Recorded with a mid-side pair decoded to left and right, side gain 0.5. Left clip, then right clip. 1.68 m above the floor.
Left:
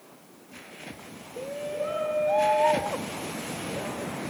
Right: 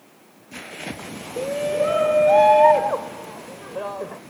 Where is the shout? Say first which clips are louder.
Right 10 dB; 55° right; by 4.2 s 50° right.